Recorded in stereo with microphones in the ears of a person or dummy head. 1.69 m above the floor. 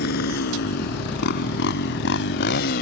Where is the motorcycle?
65° left (ahead or behind); by 2.8 s 55° left (ahead or behind).